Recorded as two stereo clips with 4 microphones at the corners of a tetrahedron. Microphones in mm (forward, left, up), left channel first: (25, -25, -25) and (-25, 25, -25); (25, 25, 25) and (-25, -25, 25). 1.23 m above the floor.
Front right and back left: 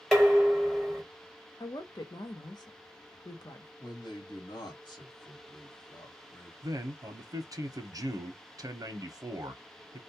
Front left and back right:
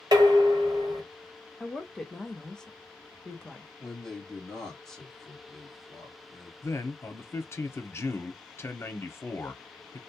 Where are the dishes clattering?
130° right, 1.1 m.